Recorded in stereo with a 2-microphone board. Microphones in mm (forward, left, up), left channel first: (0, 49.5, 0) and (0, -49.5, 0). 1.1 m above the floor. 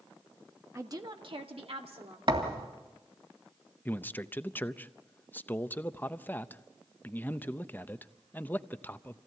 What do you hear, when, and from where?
0.8 s a woman speaking: 30° right (ahead or behind), 1.4 m; by 2.2 s 80° right, 3 m
2.3 s a thud: 60° right (ahead or behind), 2.5 m
3.9 s a man speaking: 20° left (ahead or behind), 0.6 m